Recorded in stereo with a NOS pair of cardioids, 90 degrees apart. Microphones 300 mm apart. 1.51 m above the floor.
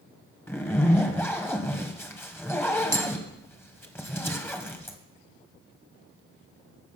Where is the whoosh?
No whoosh in this recording.